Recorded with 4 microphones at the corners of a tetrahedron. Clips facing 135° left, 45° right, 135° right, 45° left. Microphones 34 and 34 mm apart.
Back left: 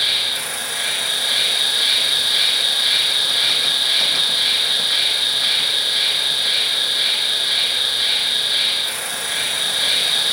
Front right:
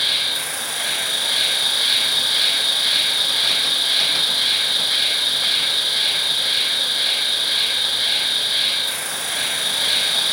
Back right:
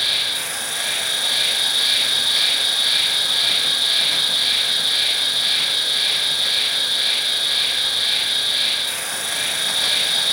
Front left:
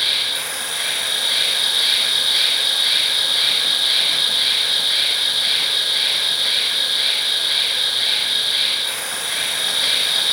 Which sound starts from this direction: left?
An insect, at 0.0 s.